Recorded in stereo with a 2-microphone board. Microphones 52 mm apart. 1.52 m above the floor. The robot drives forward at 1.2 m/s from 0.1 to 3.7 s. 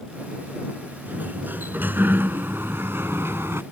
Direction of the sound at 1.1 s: 35° right (ahead or behind).